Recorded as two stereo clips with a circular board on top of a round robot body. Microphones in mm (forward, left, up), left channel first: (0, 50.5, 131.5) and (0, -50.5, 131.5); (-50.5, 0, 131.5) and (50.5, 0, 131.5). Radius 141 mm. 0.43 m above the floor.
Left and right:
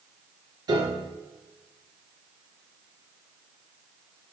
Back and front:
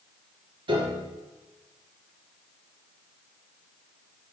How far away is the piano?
About 2.5 m.